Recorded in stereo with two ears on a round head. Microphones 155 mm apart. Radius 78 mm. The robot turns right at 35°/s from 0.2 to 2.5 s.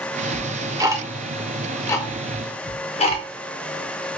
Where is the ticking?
35° right (ahead or behind), 0.5 m; by 4.1 s 35° left (ahead or behind), 0.5 m.